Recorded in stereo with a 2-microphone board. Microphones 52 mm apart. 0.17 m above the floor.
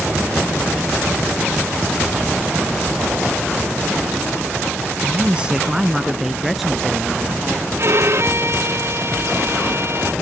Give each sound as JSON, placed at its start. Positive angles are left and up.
{"t": 5.0, "sound": "a man speaking", "side_deg": -25}
{"t": 7.8, "sound": "a violin", "side_deg": -55}